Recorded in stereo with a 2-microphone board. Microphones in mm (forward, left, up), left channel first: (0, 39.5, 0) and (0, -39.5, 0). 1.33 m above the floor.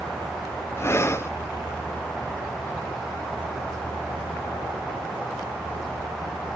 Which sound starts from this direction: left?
Breathing, at 0.8 s.